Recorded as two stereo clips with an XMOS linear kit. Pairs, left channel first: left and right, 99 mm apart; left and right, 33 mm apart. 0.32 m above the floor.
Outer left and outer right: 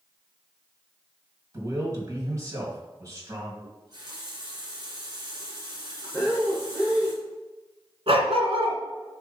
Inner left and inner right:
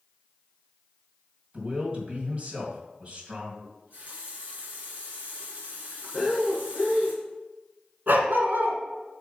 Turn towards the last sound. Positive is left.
turn(degrees=-75)  # may be behind; listen again after turning